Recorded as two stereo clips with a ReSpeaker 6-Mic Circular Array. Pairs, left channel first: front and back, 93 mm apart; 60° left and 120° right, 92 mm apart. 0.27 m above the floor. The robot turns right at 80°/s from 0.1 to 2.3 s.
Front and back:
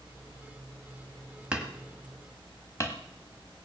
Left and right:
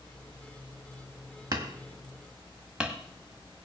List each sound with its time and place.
1.5 s hammering: 110° right, 1.5 m; by 3.0 s 45° right, 1.5 m